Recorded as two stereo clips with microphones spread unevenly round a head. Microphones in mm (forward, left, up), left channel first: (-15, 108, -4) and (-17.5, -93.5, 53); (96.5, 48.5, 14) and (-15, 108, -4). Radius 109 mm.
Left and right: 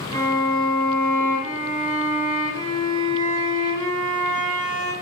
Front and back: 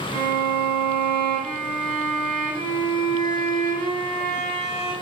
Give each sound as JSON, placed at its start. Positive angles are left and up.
{"t": 0.1, "sound": "a violin", "azimuth_deg": -165, "distance_m": 5.0}